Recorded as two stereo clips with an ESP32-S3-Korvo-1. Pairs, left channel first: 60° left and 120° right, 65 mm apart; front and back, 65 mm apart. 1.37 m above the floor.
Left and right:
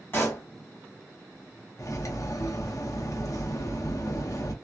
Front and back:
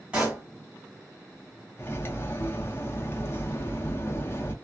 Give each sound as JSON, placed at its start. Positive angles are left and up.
{"t": 0.1, "sound": "a pop", "azimuth_deg": 110, "distance_m": 1.8}
{"t": 1.8, "sound": "cutlery clinking", "azimuth_deg": 45, "distance_m": 0.7}